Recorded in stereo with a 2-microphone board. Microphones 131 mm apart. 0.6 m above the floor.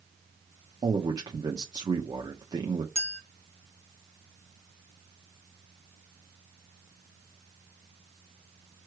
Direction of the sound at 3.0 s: 50° left (ahead or behind).